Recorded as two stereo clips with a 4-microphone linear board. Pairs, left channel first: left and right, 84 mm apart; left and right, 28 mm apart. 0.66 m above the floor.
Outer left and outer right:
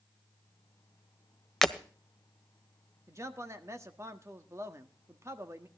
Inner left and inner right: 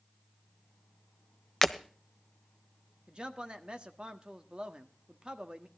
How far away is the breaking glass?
About 0.9 m.